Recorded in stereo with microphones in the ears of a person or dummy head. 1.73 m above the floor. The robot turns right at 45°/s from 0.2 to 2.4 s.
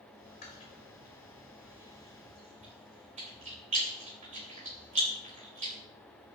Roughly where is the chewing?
Left.